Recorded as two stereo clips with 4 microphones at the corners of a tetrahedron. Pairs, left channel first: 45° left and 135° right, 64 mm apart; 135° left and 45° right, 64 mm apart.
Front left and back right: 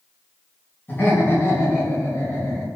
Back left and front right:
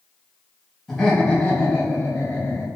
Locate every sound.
0.9 s laughter: 55° left, 1.2 m; by 2.7 s 95° left, 1.8 m